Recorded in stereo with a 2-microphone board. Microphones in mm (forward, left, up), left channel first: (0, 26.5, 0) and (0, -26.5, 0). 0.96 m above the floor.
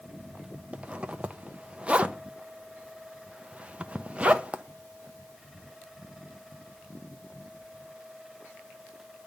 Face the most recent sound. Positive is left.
turn(degrees=-20)  # may be behind; listen again after turning